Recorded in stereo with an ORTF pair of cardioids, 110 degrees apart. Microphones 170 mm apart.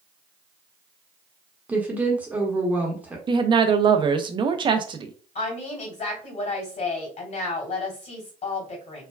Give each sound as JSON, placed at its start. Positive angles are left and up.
{"t": 1.7, "sound": "a woman speaking", "azimuth_deg": -10, "distance_m": 1.0}
{"t": 3.3, "sound": "a woman speaking", "azimuth_deg": -30, "distance_m": 0.6}
{"t": 5.3, "sound": "a woman speaking", "azimuth_deg": 50, "distance_m": 2.0}